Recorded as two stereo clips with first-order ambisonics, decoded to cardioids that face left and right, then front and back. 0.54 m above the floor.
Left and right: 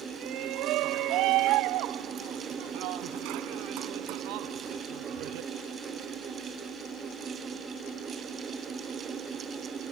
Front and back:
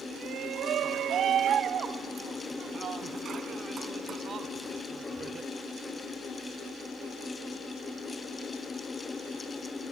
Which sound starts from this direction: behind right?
A shout, at 0.1 s.